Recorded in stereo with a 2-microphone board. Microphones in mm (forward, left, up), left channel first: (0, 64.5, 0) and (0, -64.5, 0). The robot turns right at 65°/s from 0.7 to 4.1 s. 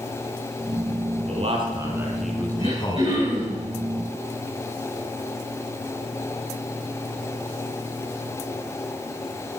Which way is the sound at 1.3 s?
55° right (ahead or behind).